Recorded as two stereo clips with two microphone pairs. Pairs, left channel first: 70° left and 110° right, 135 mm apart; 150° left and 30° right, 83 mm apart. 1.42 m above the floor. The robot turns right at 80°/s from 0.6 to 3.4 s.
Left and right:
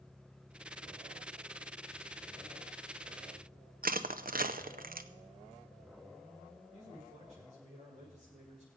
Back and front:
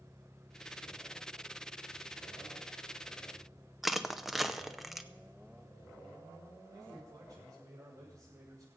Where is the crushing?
115° right, 0.7 m.